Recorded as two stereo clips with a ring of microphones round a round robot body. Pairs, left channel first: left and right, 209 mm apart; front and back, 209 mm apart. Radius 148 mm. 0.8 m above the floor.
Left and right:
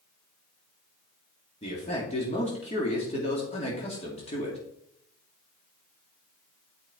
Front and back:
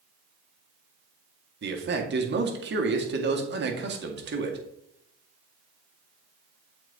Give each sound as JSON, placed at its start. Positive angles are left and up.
{"t": 1.6, "sound": "a man speaking", "azimuth_deg": 155, "distance_m": 1.8}